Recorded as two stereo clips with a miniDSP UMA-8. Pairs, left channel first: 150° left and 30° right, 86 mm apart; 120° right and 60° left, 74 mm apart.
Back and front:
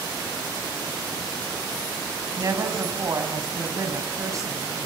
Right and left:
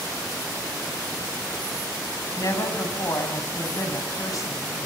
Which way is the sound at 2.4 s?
80° right.